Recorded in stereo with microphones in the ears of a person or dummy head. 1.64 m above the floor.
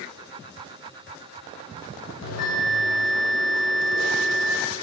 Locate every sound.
2.2 s a bell: 70° left (ahead or behind), 0.6 m